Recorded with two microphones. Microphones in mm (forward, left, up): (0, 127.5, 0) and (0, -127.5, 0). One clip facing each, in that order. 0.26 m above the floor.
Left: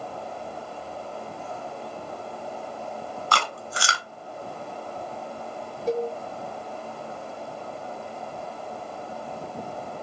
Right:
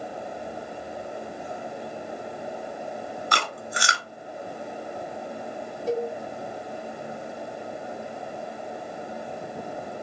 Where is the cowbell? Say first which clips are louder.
Left 1 dB; 20° left (ahead or behind), 0.7 m.